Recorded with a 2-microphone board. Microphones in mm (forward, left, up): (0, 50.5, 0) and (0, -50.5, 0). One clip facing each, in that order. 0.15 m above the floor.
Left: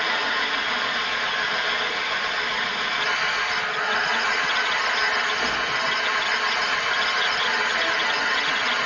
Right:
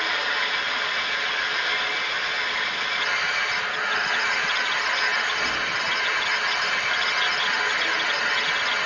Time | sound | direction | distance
0.0 | an engine running | 55° left (ahead or behind) | 5 m